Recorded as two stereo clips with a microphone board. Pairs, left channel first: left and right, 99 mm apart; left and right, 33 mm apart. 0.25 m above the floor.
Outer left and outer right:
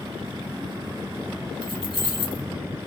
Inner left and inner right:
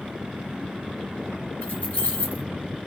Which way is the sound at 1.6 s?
55° left (ahead or behind).